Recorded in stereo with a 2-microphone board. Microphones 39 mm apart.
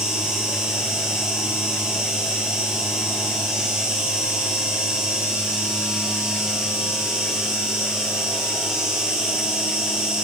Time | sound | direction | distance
0.0 | an insect | 10° right (ahead or behind) | 4 m